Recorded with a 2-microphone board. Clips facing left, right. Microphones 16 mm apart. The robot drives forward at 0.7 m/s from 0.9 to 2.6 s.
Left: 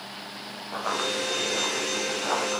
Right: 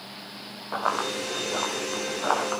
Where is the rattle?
I don't hear a rattle.